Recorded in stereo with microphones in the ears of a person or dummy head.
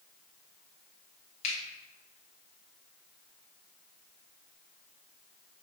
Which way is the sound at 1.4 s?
35° left (ahead or behind).